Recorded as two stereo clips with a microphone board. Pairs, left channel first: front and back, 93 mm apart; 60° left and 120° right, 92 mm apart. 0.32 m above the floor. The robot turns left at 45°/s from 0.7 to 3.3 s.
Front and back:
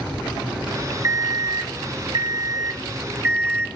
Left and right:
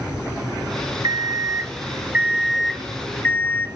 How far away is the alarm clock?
About 0.6 m.